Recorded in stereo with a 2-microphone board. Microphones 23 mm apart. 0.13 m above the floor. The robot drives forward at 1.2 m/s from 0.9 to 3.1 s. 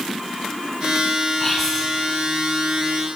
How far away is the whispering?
About 1.3 m.